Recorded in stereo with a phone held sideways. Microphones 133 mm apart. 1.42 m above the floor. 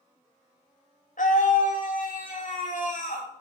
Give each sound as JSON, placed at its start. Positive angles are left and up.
{"t": 1.2, "sound": "a scream", "side_deg": 75, "distance_m": 3.0}